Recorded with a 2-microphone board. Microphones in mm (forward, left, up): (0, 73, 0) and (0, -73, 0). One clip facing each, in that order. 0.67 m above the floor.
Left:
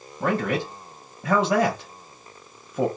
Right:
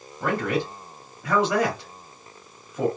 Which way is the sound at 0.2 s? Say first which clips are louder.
Left 1 dB; 35° left (ahead or behind).